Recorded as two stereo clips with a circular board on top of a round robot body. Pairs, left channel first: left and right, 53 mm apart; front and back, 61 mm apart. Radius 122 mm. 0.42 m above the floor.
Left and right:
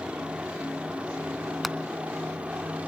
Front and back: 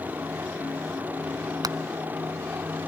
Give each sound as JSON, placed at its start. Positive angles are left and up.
{"t": 0.0, "sound": "a helicopter", "azimuth_deg": -145}
{"t": 1.6, "sound": "hammering", "azimuth_deg": 180}